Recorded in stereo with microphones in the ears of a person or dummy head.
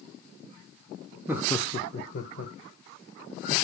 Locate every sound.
1.3 s laughter: 20° right (ahead or behind), 0.6 m; by 3.5 s 50° left (ahead or behind), 2.5 m